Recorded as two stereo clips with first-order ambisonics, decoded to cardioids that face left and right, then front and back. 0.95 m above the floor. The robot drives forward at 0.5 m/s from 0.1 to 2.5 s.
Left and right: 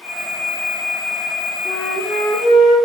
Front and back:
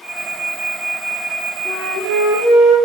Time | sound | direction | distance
1.6 | a flute | 85° left | 2.5 m